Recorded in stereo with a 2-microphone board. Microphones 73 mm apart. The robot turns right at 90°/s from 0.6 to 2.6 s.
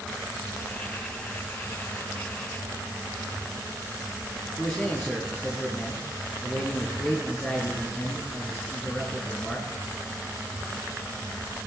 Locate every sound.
4.6 s a man speaking: 15° left (ahead or behind), 4.5 m